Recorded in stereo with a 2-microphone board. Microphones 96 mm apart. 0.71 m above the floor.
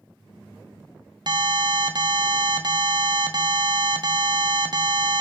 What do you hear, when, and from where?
1.3 s an alarm: 50° right (ahead or behind), 0.9 m